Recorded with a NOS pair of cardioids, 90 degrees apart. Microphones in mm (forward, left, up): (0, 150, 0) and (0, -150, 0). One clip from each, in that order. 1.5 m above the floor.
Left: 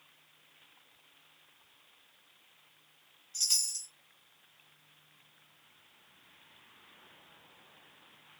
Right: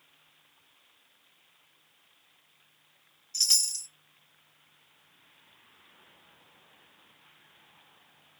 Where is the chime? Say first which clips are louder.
Right 5 dB; 40° right, 1.2 m.